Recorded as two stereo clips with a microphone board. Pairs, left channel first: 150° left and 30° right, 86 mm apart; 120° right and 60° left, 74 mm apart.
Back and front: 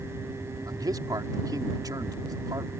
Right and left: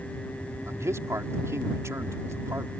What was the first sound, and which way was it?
A man speaking, 10° left.